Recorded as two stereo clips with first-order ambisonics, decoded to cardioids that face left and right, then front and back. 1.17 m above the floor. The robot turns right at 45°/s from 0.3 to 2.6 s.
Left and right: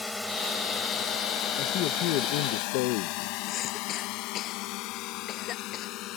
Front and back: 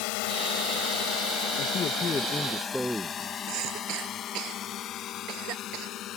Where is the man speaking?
45° left; by 3.4 s 90° left.